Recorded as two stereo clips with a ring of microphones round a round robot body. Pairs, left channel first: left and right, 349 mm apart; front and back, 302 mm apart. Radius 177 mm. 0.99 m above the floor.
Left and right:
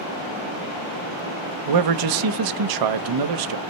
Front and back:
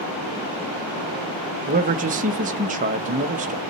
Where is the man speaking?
115° right, 0.9 m.